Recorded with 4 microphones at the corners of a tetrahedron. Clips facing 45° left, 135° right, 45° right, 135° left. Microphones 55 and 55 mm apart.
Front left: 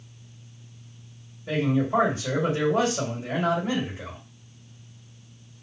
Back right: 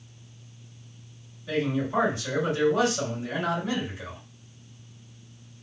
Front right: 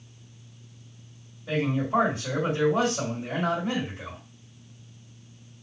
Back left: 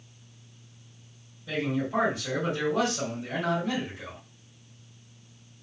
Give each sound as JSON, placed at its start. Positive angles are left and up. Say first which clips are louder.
{"t": 1.5, "sound": "a man speaking", "louder": "front left 3 dB, front right 3 dB", "azimuth_deg": 15, "distance_m": 2.0}